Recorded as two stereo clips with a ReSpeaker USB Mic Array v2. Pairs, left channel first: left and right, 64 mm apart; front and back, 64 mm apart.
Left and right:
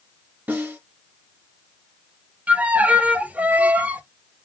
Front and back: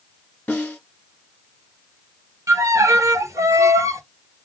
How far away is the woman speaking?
I don't hear a woman speaking.